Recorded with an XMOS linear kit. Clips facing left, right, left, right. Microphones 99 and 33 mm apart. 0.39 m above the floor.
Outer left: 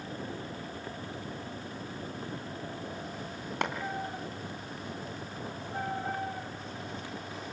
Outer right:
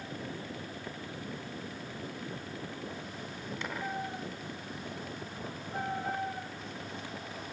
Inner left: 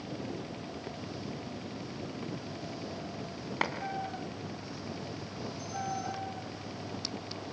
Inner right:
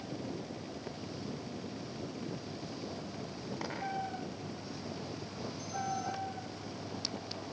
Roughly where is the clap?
Left.